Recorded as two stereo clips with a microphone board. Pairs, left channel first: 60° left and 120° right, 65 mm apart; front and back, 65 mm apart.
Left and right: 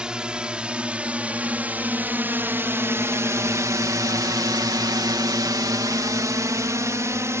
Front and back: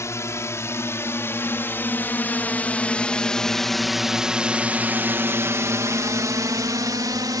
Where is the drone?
45° right; by 7.4 s 165° right.